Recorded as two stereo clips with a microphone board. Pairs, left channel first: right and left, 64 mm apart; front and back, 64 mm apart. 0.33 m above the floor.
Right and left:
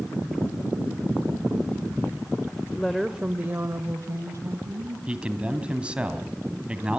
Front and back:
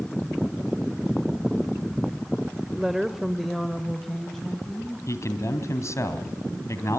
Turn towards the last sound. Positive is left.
turn(degrees=20)